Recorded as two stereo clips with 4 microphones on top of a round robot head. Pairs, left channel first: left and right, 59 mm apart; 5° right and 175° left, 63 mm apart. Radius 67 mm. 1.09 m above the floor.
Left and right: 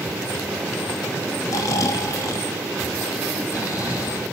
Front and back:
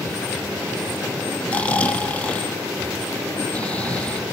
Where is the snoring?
65° left, 2.5 m.